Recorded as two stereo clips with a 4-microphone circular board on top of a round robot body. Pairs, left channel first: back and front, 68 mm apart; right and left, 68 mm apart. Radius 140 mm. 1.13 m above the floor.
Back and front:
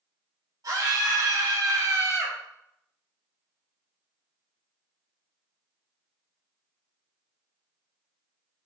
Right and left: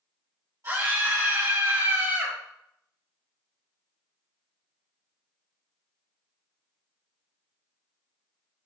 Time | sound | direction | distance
0.6 | a scream | 35° left | 6 m